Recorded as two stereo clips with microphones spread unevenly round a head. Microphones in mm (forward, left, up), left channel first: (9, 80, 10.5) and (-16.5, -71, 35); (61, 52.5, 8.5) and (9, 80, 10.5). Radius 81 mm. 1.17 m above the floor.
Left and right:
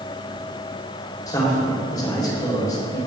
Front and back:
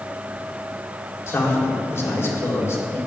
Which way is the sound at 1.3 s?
10° left.